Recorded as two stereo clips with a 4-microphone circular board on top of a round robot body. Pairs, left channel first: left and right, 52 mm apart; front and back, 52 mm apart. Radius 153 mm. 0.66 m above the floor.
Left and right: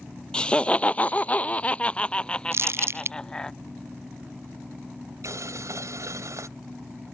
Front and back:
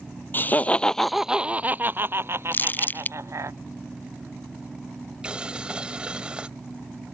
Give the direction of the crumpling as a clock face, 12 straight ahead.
2 o'clock.